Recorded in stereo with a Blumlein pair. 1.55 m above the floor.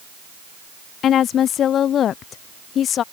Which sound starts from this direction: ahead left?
A woman speaking, at 1.0 s.